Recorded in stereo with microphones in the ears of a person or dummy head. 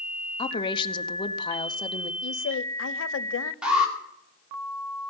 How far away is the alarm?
About 2.5 m.